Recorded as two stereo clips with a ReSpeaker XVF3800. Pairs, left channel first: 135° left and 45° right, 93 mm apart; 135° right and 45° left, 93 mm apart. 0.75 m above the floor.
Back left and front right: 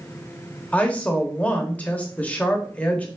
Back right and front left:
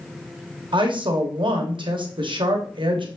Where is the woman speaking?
60° left, 1.0 m.